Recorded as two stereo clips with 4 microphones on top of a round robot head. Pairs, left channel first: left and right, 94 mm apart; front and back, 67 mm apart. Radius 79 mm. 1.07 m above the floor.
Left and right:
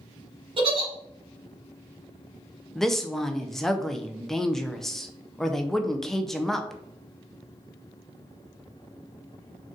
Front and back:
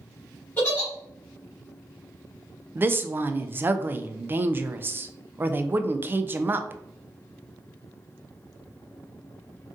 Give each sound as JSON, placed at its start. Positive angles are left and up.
{"t": 0.6, "sound": "a giggle", "azimuth_deg": -65, "distance_m": 1.7}
{"t": 2.8, "sound": "a woman speaking", "azimuth_deg": 175, "distance_m": 0.5}